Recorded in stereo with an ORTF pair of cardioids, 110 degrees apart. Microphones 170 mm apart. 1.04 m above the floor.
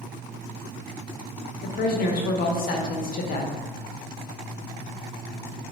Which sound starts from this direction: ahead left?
A woman speaking, at 1.6 s.